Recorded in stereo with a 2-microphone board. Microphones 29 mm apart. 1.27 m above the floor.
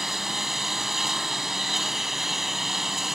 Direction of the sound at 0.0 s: 10° right (ahead or behind).